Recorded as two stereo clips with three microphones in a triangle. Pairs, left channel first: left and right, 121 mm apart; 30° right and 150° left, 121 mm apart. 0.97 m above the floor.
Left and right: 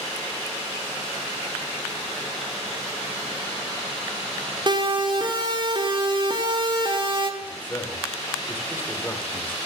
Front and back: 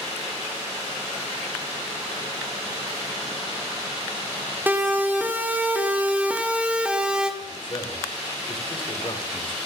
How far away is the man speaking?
About 4 m.